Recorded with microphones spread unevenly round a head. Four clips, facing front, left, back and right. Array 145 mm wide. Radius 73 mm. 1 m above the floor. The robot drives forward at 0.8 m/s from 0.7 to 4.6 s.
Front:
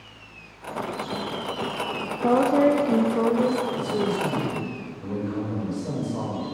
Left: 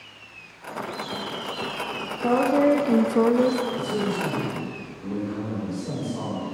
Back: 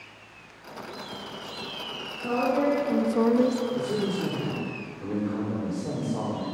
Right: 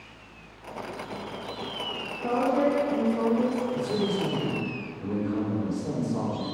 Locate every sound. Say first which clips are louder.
2.2 s a woman speaking: left 5 dB, front 6 dB; 30° left, 0.8 m; by 3.6 s 140° left, 0.6 m
3.7 s a man speaking: left 1 dB, front 3 dB; 160° right, 2.5 m; by 6.5 s 165° right, 3 m